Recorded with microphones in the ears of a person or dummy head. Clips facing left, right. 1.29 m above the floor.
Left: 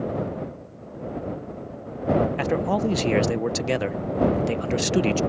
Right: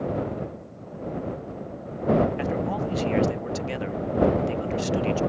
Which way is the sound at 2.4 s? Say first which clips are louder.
Left 4 dB; 65° left (ahead or behind).